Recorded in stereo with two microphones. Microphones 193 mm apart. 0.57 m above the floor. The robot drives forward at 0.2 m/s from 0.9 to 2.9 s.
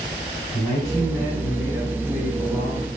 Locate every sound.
0.5 s a man speaking: 30° left (ahead or behind), 3 m; by 2.9 s 35° left (ahead or behind), 2.5 m